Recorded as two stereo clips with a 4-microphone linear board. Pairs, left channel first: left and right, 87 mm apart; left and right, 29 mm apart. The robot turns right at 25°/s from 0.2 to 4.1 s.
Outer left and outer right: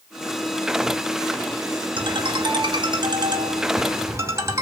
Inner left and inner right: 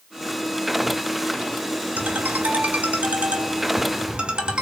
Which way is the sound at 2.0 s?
95° right.